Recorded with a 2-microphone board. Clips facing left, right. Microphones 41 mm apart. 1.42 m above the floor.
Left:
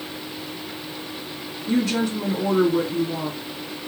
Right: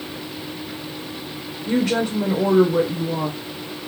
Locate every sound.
1.7 s a woman speaking: 65° right (ahead or behind), 0.9 m